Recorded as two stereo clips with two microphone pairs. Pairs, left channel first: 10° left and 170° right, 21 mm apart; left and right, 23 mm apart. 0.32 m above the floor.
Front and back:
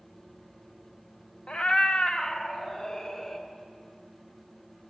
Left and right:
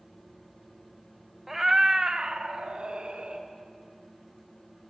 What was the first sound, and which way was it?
A cat meowing, 5° right.